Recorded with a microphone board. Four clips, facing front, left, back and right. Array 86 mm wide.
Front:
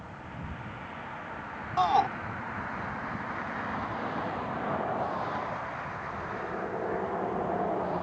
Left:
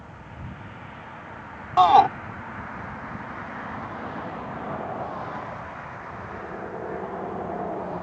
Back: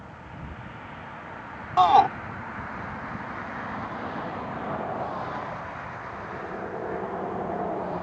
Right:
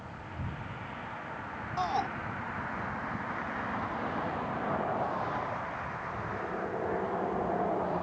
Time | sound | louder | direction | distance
1.8 | a shout | left 17 dB, back 7 dB | 120° left | ?